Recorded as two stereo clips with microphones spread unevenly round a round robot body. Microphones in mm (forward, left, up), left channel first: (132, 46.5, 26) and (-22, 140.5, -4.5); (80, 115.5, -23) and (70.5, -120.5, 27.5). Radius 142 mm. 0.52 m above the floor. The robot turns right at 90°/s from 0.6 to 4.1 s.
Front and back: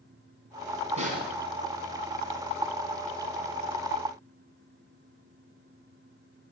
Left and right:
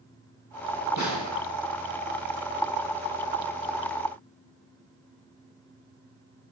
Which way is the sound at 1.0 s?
95° left.